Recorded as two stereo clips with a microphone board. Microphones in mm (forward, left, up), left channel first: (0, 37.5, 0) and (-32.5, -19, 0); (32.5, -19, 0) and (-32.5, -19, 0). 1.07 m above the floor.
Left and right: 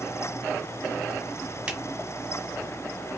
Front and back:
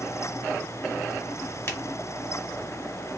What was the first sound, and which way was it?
A finger snap, 50° right.